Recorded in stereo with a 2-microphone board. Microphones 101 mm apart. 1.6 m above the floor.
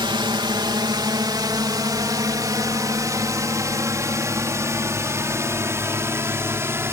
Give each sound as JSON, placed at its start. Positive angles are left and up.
{"t": 0.0, "sound": "a drone", "side_deg": -50}